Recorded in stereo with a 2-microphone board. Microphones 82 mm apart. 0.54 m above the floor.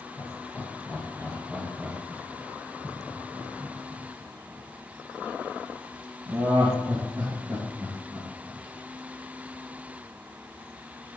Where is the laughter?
30° left (ahead or behind), 1.3 m; by 8.6 s 35° right (ahead or behind), 4.5 m.